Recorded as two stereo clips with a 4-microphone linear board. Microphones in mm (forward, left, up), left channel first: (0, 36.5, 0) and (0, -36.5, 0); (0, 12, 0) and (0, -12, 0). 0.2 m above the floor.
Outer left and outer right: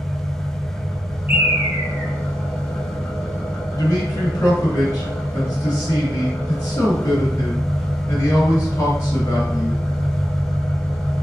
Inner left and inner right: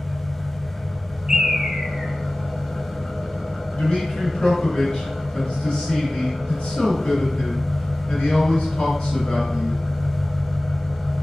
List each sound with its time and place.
0.0 s an engine running: 15° left (ahead or behind), 1.3 m
1.3 s a bird: 25° right (ahead or behind), 0.6 m
3.8 s a man speaking: 35° left (ahead or behind), 1.6 m